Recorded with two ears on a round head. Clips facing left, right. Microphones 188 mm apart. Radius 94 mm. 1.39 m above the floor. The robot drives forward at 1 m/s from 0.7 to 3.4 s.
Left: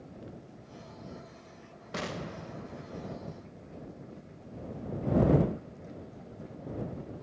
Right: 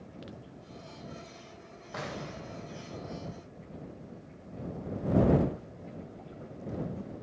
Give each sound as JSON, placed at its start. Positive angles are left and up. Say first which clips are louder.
{"t": 1.9, "sound": "an explosion", "louder": "left 2 dB", "side_deg": 35, "distance_m": 0.9}